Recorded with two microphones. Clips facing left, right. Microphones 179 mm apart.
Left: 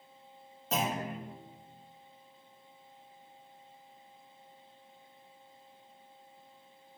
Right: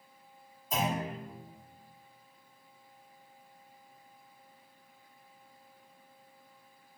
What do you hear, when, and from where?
0.7 s a clunk: 70° left (ahead or behind), 2.5 m